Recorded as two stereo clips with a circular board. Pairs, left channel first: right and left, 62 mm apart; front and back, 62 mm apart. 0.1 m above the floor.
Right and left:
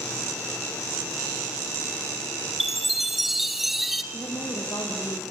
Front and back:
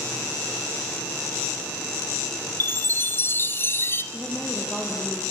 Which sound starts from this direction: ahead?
A chime, at 2.6 s.